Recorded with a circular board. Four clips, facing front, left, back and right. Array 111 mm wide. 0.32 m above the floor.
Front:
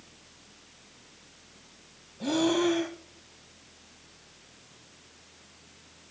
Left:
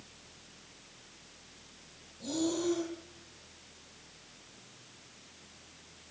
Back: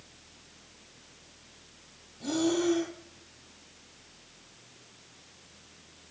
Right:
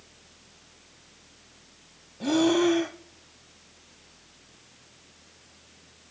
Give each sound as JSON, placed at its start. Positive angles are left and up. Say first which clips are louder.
{"t": 2.2, "sound": "breathing", "louder": "right 11 dB, front 2 dB", "azimuth_deg": -65, "distance_m": 0.7}